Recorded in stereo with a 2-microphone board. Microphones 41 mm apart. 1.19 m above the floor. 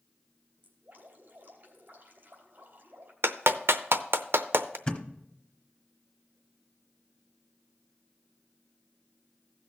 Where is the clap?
75° right (ahead or behind), 0.7 m.